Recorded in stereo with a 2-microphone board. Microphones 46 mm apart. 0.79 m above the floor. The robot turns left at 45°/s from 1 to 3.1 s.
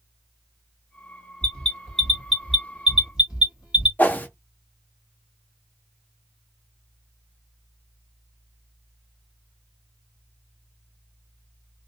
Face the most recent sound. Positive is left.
turn(degrees=40)  # may be behind; listen again after turning